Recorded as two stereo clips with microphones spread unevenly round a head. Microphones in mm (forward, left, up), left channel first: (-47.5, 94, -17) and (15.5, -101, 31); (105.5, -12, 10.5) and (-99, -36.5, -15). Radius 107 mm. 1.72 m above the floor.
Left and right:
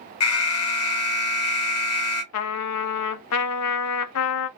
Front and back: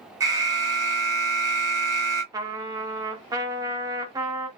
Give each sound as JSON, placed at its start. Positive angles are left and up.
{"t": 0.2, "sound": "an alarm", "azimuth_deg": 110, "distance_m": 1.2}
{"t": 2.3, "sound": "a trumpet", "azimuth_deg": 110, "distance_m": 0.5}